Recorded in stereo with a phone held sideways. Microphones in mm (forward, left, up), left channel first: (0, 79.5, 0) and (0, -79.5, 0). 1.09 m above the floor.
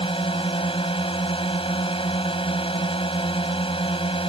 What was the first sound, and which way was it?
A drone, 30° left (ahead or behind).